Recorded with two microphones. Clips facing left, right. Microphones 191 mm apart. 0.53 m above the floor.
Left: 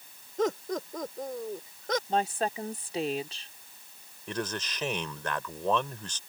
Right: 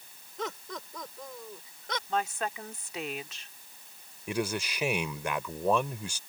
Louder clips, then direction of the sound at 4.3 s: Right 3 dB; 10° right (ahead or behind).